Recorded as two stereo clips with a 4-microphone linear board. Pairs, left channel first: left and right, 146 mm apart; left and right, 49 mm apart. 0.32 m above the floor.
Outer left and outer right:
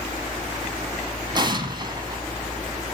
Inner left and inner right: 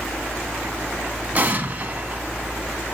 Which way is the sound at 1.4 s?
30° right (ahead or behind).